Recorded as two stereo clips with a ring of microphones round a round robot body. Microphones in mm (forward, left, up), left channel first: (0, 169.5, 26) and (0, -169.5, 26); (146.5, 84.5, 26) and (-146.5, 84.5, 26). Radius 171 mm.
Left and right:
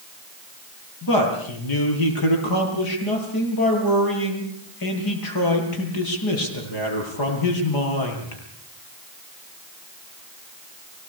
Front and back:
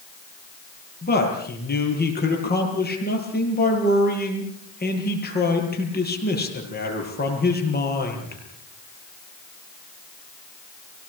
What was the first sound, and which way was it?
A man speaking, 60° left.